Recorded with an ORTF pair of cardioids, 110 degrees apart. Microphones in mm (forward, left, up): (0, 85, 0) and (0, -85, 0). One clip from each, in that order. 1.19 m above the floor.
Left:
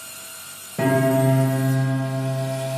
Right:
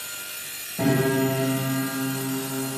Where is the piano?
50° left, 3.5 m.